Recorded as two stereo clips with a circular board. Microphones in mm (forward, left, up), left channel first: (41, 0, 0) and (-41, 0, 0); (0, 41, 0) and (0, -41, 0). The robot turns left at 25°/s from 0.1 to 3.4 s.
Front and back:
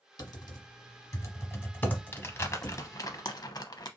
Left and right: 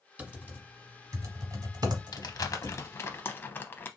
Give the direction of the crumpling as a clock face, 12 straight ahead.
10 o'clock.